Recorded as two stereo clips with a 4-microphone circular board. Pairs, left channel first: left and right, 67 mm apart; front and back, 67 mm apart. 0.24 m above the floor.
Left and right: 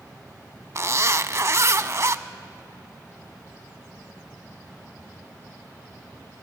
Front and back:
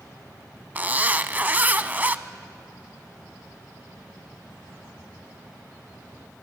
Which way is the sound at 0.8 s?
120° right.